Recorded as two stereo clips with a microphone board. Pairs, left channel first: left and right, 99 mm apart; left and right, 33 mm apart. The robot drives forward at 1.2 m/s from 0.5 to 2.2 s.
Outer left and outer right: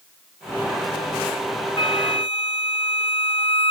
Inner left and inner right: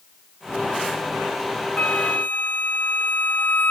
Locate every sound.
1.8 s a flute: 60° left (ahead or behind); by 3.7 s 70° left (ahead or behind)